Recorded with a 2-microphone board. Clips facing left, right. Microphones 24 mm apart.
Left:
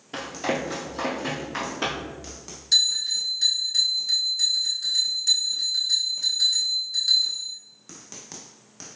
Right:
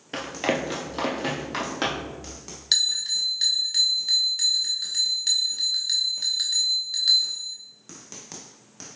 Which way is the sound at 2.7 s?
65° right (ahead or behind).